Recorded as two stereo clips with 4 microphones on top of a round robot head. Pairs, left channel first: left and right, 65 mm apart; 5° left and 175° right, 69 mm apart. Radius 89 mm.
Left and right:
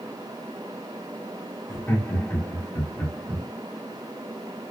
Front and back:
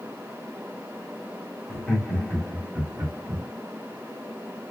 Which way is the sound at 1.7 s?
65° left.